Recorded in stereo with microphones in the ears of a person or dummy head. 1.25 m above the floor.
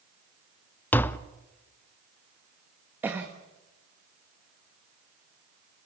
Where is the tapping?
10° left (ahead or behind), 0.6 m.